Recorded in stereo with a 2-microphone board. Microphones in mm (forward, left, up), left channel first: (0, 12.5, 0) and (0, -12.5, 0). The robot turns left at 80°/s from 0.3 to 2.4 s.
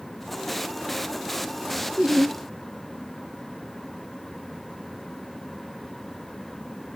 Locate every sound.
2.0 s laughter: 85° right, 3.5 m; by 2.4 s 120° right, 3.5 m